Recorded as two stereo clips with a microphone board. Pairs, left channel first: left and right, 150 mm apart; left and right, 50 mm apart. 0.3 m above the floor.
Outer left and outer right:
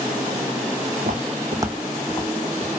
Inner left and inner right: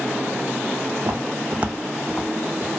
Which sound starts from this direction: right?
Footsteps, at 1.0 s.